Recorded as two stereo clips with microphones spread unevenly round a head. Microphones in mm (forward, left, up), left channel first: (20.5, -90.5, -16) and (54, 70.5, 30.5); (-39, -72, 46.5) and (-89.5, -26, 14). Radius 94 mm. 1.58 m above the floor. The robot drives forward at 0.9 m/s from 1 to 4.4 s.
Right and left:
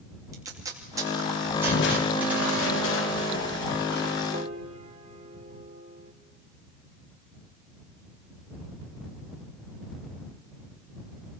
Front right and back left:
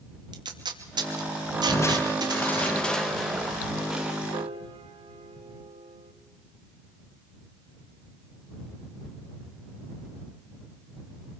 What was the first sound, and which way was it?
Tape being pulled, 150° left.